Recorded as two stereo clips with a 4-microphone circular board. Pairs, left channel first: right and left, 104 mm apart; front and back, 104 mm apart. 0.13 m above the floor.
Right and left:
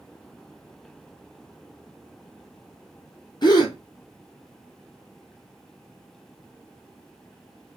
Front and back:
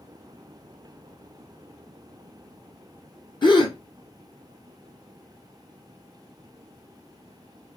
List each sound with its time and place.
3.4 s a gasp: 45° right, 1.0 m